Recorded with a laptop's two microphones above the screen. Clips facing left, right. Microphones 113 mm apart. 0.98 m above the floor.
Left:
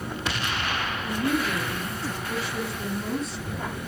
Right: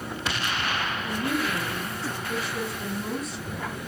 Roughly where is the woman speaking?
Left.